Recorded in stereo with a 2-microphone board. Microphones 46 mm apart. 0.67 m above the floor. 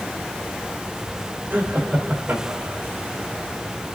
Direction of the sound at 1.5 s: 50° right (ahead or behind).